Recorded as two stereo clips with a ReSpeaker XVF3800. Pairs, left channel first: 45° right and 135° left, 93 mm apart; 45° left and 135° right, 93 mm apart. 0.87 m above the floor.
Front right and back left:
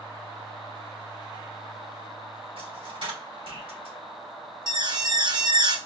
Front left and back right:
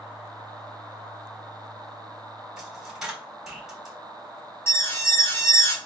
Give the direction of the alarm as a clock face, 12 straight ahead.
9 o'clock.